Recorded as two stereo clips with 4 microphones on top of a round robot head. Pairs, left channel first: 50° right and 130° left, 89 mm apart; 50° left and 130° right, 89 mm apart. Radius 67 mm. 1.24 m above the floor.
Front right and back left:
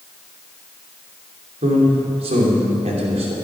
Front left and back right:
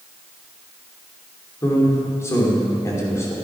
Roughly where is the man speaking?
Behind left.